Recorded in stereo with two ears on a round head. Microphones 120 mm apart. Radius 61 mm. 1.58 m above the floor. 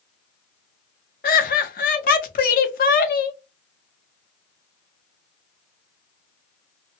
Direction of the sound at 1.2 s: 75° left (ahead or behind).